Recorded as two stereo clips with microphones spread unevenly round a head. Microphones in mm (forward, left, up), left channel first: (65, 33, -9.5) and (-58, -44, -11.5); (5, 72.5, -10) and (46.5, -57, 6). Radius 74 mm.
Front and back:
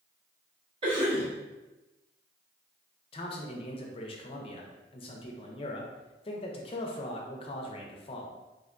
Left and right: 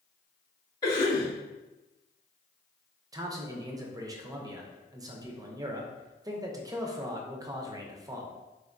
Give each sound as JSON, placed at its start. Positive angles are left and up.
{"t": 0.8, "sound": "a cough", "azimuth_deg": 165, "distance_m": 0.8}
{"t": 3.1, "sound": "a man speaking", "azimuth_deg": -10, "distance_m": 0.5}